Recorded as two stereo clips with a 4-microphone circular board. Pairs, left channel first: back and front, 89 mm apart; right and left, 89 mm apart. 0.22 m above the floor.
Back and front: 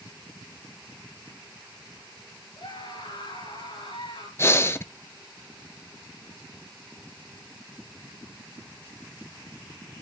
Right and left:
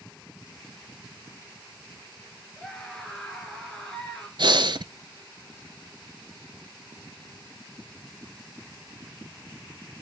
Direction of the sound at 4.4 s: 120° left.